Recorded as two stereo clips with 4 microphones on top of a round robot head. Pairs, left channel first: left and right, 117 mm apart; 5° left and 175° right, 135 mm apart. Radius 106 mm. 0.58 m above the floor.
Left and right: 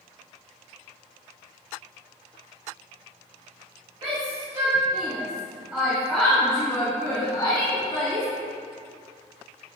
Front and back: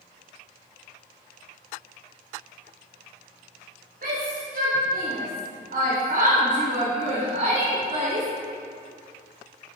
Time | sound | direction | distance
4.0 | a shout | 150° right | 2.5 m